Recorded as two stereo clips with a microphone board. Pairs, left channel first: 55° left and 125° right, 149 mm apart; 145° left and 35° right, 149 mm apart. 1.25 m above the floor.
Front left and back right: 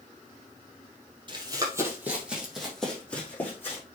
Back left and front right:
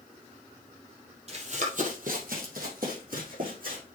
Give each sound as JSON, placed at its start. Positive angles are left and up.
{"t": 1.3, "sound": "running footsteps", "azimuth_deg": -70, "distance_m": 2.5}